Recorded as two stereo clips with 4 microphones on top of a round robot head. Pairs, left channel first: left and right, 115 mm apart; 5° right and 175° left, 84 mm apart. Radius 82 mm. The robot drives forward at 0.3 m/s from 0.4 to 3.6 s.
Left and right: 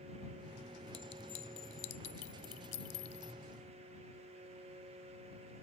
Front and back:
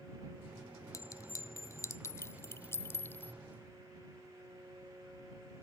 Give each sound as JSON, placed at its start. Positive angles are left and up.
{"t": 0.9, "sound": "a clink", "azimuth_deg": 45}